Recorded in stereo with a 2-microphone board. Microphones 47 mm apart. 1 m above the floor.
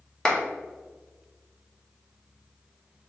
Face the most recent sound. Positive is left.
turn(degrees=15)  # may be behind; listen again after turning